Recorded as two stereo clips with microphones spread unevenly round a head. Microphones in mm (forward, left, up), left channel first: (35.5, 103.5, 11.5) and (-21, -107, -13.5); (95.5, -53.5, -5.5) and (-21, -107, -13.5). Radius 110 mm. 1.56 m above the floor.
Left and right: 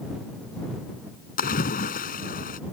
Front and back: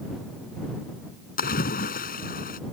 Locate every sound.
1.4 s a splash: 20° left